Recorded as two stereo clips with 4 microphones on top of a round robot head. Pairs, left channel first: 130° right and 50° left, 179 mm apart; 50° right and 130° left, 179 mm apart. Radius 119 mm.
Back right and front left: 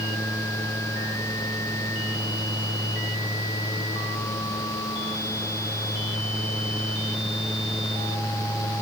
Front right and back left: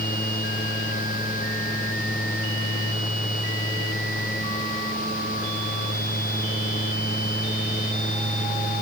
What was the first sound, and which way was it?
Only background noise.